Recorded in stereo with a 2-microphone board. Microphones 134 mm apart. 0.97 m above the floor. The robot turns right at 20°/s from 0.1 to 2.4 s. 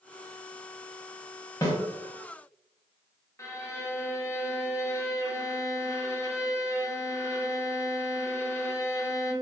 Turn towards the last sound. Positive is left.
turn(degrees=20)  # may be behind; listen again after turning